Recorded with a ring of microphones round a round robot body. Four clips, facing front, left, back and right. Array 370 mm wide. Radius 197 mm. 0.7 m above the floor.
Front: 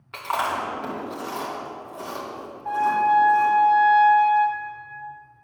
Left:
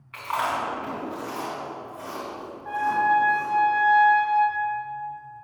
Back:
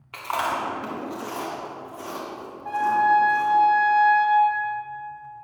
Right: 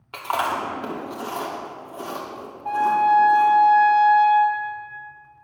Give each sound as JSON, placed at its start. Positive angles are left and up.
{"t": 0.1, "sound": "chewing", "azimuth_deg": -85, "distance_m": 2.5}
{"t": 2.6, "sound": "a trumpet", "azimuth_deg": -95, "distance_m": 3.0}